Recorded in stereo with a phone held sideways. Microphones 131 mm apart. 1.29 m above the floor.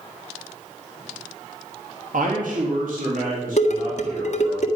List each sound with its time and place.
2.1 s a man speaking: 85° right, 1.9 m
3.6 s dishes clattering: 60° left (ahead or behind), 1.6 m